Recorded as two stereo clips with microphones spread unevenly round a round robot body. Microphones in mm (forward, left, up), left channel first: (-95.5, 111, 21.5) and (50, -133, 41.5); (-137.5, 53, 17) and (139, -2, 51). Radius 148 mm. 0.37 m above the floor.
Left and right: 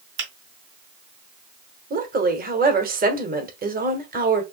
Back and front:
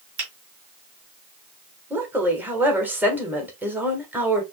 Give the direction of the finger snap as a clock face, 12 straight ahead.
1 o'clock.